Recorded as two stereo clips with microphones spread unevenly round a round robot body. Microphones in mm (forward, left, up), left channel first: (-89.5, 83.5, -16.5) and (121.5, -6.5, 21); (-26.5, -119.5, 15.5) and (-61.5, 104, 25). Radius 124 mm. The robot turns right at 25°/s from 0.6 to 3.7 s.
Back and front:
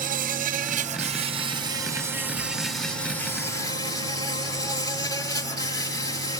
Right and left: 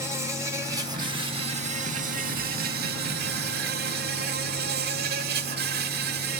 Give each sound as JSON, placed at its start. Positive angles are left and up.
{"t": 0.0, "sound": "an insect", "azimuth_deg": 25, "distance_m": 1.2}